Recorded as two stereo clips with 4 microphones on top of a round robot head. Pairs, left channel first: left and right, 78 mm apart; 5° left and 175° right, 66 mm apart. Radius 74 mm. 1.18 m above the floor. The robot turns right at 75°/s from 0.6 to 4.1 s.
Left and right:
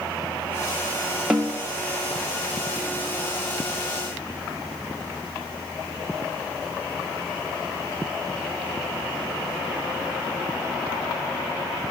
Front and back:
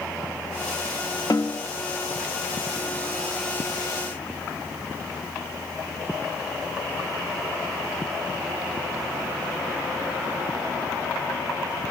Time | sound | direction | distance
1.3 | a snare drum | 15° right | 0.6 m